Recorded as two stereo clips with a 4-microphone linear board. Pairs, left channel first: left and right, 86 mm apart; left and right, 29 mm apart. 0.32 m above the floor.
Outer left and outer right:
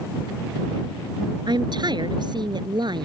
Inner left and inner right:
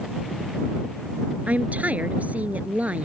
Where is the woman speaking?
55° right (ahead or behind).